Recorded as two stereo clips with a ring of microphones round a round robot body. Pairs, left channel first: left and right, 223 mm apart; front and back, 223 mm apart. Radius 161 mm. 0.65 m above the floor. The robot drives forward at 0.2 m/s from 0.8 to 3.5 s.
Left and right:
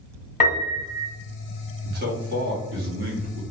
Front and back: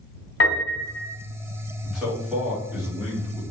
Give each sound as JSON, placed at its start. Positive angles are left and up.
{"t": 0.4, "sound": "a piano", "azimuth_deg": 30, "distance_m": 1.3}
{"t": 1.8, "sound": "a man speaking", "azimuth_deg": -90, "distance_m": 1.1}